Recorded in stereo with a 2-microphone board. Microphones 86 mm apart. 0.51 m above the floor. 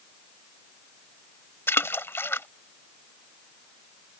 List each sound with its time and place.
1.7 s a splash: 30° left (ahead or behind)